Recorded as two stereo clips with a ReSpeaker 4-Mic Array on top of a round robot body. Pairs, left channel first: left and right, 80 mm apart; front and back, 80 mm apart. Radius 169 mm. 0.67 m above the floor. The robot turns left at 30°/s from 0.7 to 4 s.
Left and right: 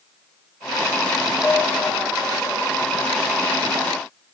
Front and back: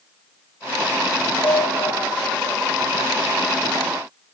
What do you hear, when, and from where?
1.4 s a piano: 25° left, 1.4 m; by 1.9 s 10° left, 1.4 m